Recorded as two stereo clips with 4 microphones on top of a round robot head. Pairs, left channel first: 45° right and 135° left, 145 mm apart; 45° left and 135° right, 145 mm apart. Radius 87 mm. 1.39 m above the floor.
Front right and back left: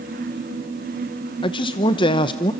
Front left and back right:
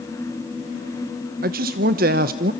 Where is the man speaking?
105° right, 0.8 m.